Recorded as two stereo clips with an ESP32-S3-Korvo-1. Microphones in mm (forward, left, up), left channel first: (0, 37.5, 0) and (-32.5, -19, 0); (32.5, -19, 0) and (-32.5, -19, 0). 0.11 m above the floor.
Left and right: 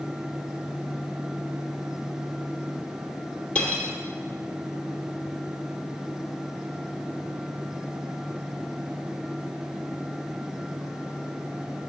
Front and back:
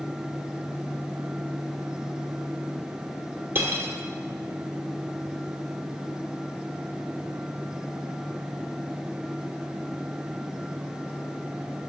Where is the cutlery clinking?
130° left, 1.7 m.